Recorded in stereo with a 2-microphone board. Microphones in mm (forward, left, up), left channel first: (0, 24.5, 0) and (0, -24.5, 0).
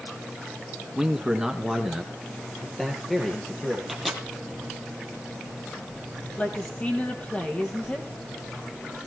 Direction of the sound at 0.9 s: 20° right (ahead or behind).